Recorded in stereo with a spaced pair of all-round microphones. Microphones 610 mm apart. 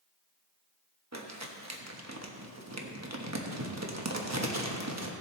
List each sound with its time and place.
1.1 s crumpling: 25° right (ahead or behind), 1.0 m